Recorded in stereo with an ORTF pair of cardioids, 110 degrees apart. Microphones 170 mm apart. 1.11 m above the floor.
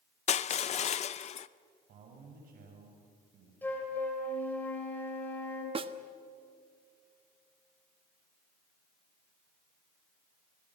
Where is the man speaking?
60° right, 6.5 m.